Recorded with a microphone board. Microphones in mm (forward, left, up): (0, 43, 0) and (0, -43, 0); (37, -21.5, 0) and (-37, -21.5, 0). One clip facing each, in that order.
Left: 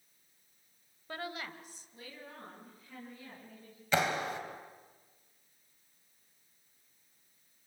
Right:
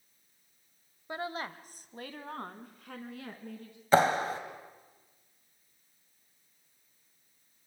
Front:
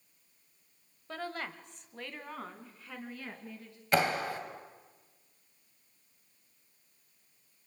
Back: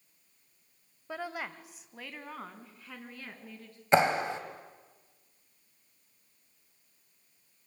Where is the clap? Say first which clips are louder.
Right 7 dB, back 4 dB; 120° right, 1.6 m.